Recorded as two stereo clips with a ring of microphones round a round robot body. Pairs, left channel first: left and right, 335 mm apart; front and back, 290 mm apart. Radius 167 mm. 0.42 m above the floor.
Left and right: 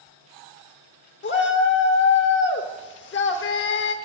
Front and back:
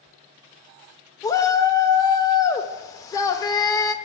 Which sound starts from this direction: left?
A shout, at 1.2 s.